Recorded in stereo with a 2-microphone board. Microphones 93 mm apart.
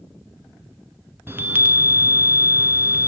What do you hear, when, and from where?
1.3 s a chime: 25° right (ahead or behind), 0.8 m